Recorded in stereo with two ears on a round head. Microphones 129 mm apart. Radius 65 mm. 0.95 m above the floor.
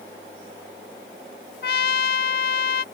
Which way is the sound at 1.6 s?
75° left (ahead or behind).